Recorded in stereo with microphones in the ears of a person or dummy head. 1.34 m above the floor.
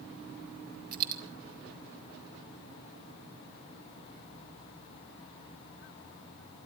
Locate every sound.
0.9 s a dropped coin: 50° right (ahead or behind), 1.3 m